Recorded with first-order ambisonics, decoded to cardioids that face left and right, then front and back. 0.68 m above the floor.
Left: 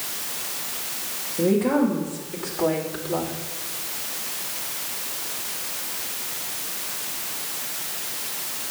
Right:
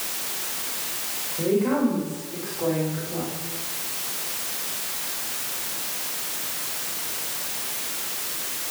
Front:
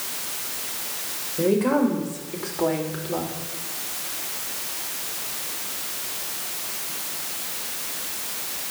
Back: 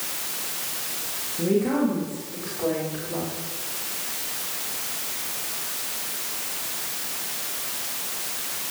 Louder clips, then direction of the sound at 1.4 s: Left 2 dB, front 3 dB; 5° left.